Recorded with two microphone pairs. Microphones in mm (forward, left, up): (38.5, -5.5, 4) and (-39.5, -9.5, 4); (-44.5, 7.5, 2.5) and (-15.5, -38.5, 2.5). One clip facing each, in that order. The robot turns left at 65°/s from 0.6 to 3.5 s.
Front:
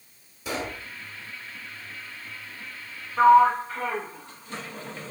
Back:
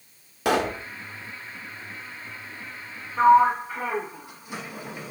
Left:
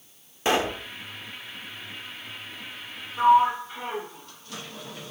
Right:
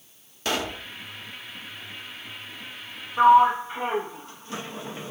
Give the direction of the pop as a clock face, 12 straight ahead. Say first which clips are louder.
Back 9 dB, left 4 dB; 6 o'clock.